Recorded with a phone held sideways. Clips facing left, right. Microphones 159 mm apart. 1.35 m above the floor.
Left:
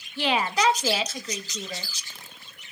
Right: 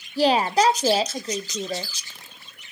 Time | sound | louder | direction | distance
0.2 | a woman speaking | right 6 dB | 40° right (ahead or behind) | 0.6 m